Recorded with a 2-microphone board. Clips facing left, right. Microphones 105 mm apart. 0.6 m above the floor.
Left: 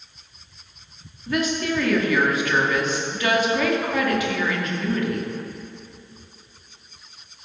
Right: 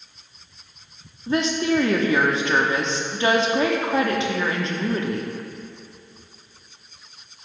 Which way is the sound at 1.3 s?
30° right (ahead or behind).